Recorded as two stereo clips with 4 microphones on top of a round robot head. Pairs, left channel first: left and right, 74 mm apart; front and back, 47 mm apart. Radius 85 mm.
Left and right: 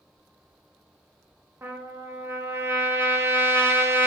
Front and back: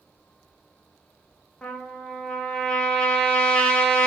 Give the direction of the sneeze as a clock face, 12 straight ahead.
No sneeze in this recording.